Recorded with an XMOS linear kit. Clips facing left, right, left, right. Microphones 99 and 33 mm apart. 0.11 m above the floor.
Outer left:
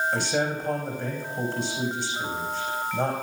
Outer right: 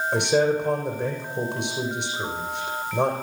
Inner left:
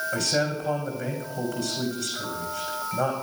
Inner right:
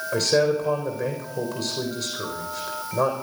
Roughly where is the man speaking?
Right.